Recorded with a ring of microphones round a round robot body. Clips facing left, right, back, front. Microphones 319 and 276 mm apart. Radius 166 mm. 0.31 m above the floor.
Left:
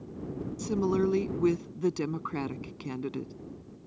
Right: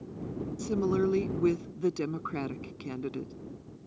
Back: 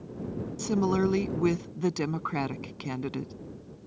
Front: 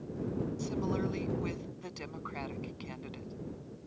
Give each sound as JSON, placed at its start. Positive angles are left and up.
{"t": 0.6, "sound": "a woman speaking", "azimuth_deg": 170}